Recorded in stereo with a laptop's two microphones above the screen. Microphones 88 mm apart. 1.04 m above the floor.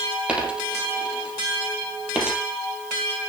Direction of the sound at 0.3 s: 10° right (ahead or behind).